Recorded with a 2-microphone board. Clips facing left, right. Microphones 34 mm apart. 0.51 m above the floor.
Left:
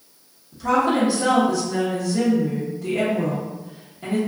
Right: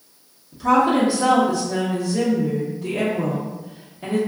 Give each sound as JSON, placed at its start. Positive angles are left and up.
{"t": 0.5, "sound": "a woman speaking", "side_deg": -5, "distance_m": 0.8}